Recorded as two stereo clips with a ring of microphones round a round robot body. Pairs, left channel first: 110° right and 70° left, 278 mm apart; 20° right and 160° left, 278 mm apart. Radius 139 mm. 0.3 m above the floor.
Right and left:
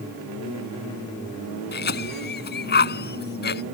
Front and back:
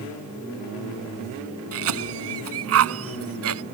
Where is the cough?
165° right.